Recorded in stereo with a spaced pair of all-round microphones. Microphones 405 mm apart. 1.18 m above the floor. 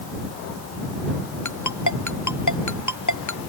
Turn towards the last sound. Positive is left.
turn(degrees=45)  # may be behind; listen again after turning